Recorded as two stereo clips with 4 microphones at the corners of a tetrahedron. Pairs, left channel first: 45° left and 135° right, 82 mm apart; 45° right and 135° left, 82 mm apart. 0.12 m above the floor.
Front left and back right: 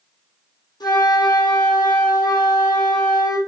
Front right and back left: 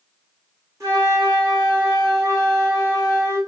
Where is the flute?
80° left, 4 m.